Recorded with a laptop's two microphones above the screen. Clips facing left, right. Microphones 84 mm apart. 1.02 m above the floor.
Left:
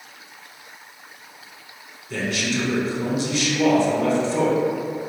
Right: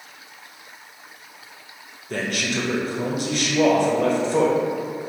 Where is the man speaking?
50° right (ahead or behind), 0.8 m.